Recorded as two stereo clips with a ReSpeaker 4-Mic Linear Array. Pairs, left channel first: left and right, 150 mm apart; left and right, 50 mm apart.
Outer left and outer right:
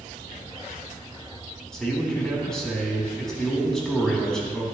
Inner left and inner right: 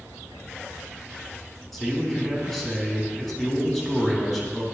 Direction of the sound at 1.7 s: 5° left (ahead or behind).